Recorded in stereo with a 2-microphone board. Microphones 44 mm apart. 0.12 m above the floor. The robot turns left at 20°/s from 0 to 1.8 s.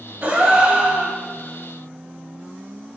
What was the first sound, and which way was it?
A gasp, 35° right (ahead or behind).